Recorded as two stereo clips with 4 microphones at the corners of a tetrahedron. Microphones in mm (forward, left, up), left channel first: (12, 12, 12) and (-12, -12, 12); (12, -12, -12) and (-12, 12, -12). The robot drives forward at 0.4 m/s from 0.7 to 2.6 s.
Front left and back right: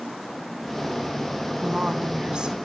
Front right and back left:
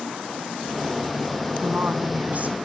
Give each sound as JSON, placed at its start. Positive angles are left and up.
{"t": 1.6, "sound": "a woman speaking", "azimuth_deg": 165, "distance_m": 3.0}